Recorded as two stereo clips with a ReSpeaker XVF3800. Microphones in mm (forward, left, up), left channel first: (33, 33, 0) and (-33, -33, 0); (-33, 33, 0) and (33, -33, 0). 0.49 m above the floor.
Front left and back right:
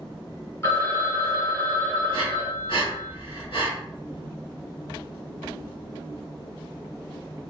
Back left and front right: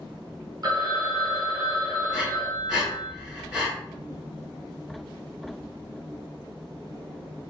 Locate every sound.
0.6 s a phone ringing: 10° right, 0.8 m
2.1 s breathing: 35° left, 1.0 m